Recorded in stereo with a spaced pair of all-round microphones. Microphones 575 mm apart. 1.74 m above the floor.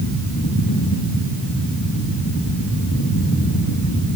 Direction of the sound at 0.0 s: 30° left (ahead or behind).